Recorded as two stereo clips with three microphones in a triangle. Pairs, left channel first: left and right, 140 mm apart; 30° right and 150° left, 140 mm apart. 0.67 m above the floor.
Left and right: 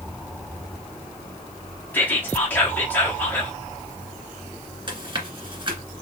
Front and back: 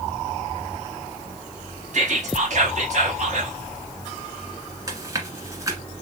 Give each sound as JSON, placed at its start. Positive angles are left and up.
{"t": 1.9, "sound": "whispering", "azimuth_deg": 165, "distance_m": 0.9}
{"t": 4.9, "sound": "chewing", "azimuth_deg": -145, "distance_m": 1.6}